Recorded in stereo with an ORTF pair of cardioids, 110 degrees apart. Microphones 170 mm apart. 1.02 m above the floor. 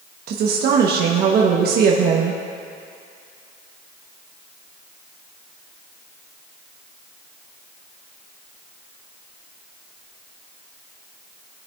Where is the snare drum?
No snare drum in this recording.